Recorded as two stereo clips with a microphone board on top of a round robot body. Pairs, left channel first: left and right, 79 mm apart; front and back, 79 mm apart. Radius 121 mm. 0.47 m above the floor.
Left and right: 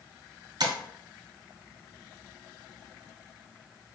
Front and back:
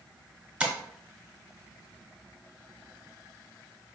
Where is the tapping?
105° right, 0.9 m.